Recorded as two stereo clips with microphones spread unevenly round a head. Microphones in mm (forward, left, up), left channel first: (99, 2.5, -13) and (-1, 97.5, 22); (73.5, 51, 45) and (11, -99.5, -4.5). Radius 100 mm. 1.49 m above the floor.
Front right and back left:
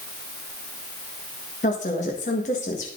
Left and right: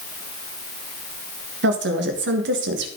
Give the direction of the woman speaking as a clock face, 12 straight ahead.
3 o'clock.